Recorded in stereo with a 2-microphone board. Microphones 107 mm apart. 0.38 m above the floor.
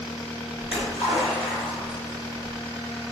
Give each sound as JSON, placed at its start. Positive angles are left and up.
{"t": 0.6, "sound": "a splash", "side_deg": 65, "distance_m": 1.8}